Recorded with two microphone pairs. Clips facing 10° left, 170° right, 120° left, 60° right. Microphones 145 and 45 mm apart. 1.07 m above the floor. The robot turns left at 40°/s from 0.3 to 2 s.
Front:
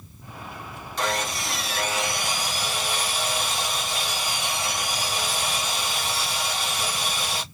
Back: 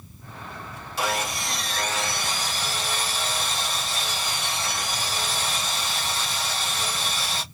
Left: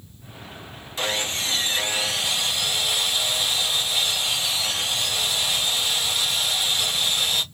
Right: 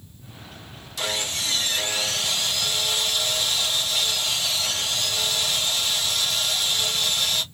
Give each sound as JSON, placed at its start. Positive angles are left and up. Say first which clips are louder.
{"t": 1.0, "sound": "sawing", "louder": "even, left 2 dB", "azimuth_deg": 110, "distance_m": 0.8}